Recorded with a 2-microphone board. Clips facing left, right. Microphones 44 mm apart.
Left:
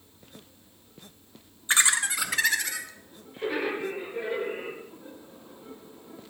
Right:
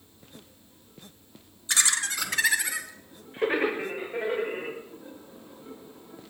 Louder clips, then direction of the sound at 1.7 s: Left 3 dB; 30° left (ahead or behind).